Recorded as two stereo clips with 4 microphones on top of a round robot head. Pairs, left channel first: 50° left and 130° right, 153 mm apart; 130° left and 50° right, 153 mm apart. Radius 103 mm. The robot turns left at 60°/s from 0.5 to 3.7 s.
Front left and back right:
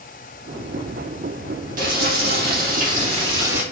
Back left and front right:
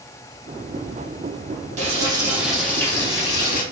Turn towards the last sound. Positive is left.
turn(degrees=150)